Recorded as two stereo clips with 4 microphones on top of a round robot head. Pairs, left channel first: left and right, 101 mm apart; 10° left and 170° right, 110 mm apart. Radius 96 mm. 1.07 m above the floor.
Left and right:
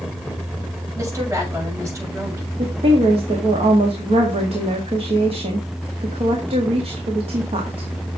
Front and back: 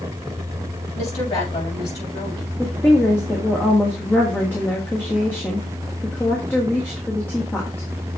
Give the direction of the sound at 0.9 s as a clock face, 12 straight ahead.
1 o'clock.